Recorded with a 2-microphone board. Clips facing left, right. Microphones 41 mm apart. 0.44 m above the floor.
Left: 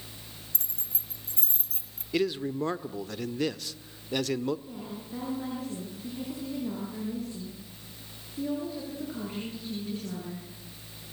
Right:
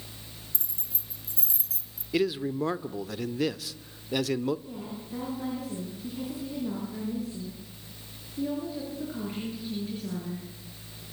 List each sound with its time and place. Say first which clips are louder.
0.5 s keys jangling: left 1 dB; 55° left (ahead or behind), 2.5 m; by 2.0 s 35° left (ahead or behind), 2.5 m
2.1 s a man speaking: right 1 dB; centre (ahead or behind), 0.9 m
4.7 s a woman speaking: right 1 dB; centre (ahead or behind), 9 m